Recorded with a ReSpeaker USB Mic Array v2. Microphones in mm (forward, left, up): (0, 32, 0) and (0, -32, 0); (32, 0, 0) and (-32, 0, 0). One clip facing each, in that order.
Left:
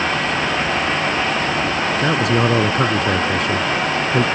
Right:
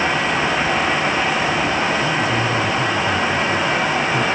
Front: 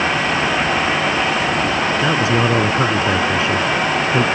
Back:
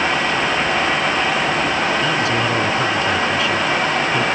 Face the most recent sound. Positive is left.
turn(degrees=65)